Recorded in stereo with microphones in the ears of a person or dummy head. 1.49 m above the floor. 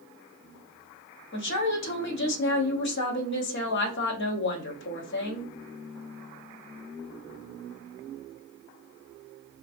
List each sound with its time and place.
1.3 s a woman speaking: 55° left (ahead or behind), 0.7 m